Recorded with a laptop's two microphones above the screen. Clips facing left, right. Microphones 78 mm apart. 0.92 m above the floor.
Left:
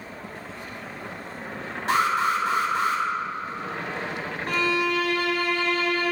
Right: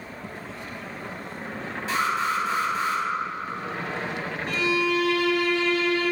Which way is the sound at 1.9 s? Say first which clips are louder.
Left 3 dB; 55° left (ahead or behind).